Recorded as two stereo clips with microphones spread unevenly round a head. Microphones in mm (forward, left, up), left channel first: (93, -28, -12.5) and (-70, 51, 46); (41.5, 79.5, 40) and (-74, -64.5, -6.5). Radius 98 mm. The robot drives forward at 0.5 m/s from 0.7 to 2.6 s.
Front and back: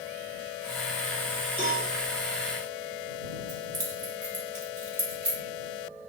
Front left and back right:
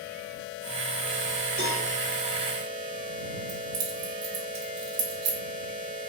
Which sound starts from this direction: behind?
Keys jangling, at 3.5 s.